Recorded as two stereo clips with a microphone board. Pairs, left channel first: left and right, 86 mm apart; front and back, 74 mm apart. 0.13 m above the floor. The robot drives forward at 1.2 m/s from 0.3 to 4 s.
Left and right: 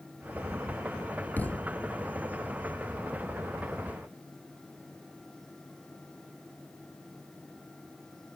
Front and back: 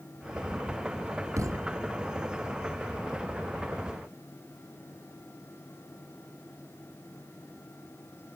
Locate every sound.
1.4 s a thud: 155° left, 0.9 m; by 1.8 s 165° left, 1.3 m